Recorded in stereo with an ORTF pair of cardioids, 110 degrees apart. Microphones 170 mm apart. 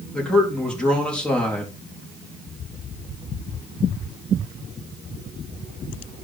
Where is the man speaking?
5° left, 4 m.